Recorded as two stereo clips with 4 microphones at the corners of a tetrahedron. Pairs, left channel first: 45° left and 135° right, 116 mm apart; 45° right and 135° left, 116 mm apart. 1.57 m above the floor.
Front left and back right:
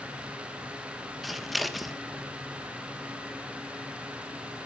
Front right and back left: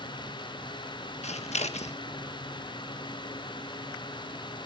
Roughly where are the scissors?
Ahead right.